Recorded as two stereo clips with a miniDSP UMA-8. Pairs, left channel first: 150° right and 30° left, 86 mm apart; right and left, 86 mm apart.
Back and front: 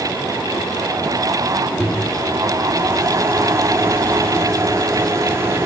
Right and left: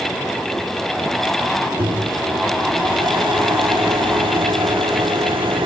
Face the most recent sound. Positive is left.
turn(degrees=85)